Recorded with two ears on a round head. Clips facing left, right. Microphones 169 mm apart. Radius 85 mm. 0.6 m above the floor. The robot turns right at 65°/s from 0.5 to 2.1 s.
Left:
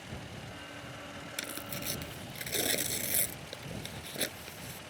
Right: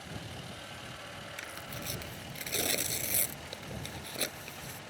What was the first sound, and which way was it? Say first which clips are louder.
Tearing paper: left 5 dB; 50° left (ahead or behind).